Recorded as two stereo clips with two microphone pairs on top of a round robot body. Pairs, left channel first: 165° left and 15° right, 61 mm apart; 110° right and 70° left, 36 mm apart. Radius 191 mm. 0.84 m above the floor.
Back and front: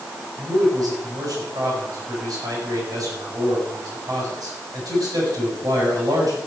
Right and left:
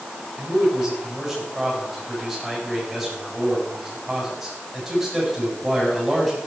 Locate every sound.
0.4 s a man speaking: 10° right, 8.5 m